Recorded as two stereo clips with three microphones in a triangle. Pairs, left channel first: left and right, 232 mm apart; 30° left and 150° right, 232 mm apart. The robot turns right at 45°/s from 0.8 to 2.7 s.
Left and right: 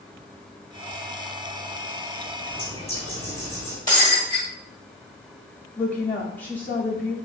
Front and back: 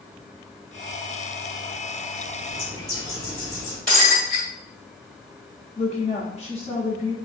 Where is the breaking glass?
25° right, 1.6 m.